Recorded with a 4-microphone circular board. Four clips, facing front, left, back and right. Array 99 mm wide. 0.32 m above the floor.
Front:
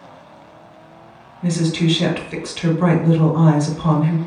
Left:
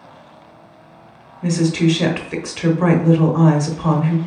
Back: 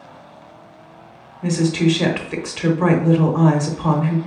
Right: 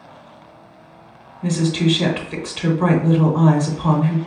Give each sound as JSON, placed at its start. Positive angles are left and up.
{"t": 1.4, "sound": "a woman speaking", "azimuth_deg": 120, "distance_m": 0.9}